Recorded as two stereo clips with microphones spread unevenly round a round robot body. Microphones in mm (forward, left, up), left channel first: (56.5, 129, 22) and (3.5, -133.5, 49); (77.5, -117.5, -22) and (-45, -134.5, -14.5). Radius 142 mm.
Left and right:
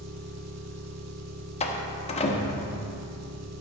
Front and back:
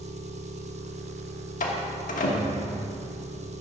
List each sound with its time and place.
0.0 s an engine running: 140° right, 1.1 m
1.6 s a door slam: 15° left, 1.1 m